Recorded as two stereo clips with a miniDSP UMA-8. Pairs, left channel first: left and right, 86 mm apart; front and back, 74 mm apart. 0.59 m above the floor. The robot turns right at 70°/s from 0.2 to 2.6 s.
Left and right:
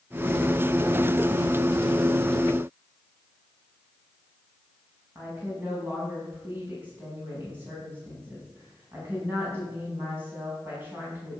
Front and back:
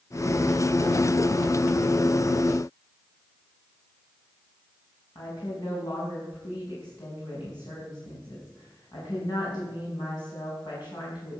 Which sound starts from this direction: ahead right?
A woman speaking, at 5.2 s.